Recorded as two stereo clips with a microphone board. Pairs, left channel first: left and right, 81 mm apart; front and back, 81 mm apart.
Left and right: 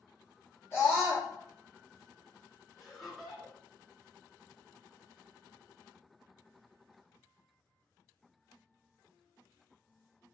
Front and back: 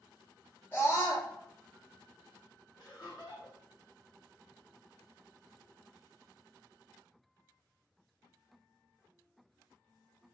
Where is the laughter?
Straight ahead, 1.3 m.